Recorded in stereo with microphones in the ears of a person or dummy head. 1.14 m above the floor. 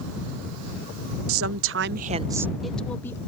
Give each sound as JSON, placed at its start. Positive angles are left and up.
{"t": 1.3, "sound": "a woman speaking", "side_deg": -65}